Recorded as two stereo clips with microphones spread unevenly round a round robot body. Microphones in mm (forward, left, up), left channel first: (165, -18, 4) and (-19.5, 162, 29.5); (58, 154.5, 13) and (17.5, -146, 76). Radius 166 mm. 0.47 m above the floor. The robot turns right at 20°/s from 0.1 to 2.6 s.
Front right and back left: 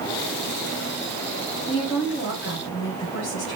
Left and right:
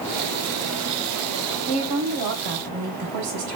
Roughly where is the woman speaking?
Behind right.